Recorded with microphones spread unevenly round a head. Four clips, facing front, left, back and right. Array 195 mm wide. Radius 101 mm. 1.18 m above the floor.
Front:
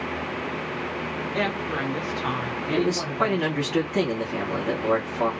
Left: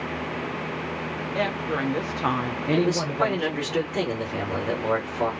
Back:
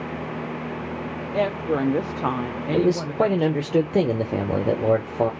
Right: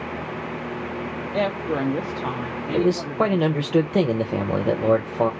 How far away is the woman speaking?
About 0.9 m.